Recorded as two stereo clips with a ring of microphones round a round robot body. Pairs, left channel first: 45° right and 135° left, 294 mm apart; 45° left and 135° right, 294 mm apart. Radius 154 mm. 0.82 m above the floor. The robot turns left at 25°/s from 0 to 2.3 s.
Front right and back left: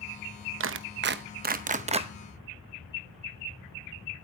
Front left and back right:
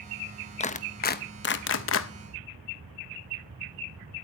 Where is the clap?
105° left, 0.8 m; by 2.1 s 70° left, 0.8 m.